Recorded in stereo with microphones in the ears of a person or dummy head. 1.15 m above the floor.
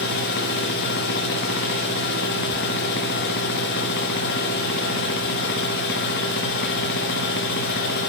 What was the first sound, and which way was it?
A machine running, 60° left (ahead or behind).